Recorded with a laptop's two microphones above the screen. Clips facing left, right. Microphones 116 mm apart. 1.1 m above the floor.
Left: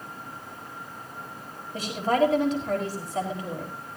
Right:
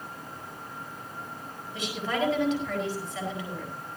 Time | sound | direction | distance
1.7 | a woman speaking | 40° left (ahead or behind) | 4.5 m